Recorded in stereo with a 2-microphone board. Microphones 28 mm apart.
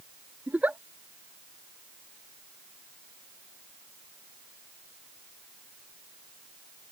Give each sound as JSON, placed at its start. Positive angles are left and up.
{"t": 0.5, "sound": "a giggle", "side_deg": -65}